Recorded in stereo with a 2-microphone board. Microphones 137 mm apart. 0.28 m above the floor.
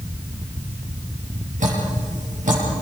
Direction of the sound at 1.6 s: 65° right (ahead or behind).